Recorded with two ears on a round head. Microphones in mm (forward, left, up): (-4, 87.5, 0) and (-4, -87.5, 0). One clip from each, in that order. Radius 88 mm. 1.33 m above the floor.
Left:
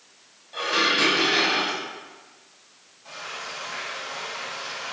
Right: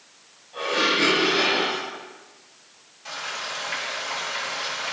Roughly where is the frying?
Right.